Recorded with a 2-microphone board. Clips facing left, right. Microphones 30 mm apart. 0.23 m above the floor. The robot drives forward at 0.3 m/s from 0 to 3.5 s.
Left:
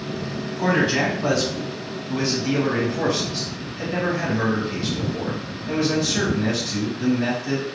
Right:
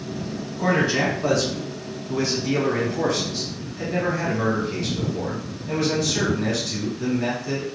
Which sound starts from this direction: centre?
A man speaking, at 0.6 s.